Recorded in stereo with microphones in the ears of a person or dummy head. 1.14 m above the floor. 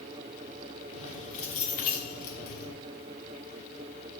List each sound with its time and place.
0.9 s keys jangling: 35° left (ahead or behind), 2.5 m; by 2.7 s 55° left (ahead or behind), 1.9 m